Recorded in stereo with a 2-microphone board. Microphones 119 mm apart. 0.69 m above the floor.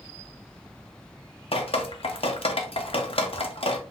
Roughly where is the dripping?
Left.